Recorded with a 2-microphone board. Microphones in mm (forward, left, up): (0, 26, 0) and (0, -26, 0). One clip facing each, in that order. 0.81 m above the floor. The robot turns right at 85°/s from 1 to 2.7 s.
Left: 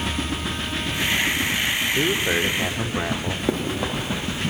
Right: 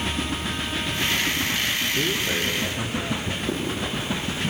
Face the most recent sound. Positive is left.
turn(degrees=65)  # may be behind; listen again after turning